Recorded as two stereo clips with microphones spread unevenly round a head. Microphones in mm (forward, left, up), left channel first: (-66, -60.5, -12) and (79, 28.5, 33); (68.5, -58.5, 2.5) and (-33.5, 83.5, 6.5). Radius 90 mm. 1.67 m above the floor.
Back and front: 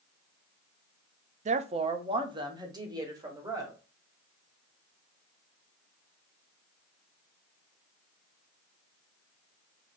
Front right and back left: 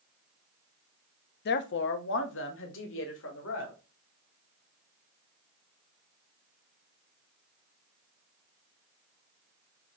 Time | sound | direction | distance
1.4 | a woman speaking | 20° right | 0.5 m